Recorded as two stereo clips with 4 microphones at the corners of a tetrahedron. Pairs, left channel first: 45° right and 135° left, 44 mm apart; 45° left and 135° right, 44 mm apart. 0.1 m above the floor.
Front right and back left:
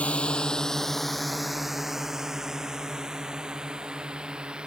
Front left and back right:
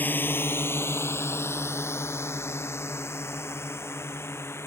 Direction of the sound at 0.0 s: 10° left.